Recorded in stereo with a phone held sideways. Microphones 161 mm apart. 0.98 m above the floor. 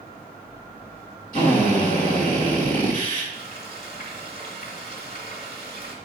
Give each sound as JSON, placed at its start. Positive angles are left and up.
{"t": 1.3, "sound": "a drill", "side_deg": 60, "distance_m": 3.0}
{"t": 3.3, "sound": "frying", "side_deg": 70, "distance_m": 2.0}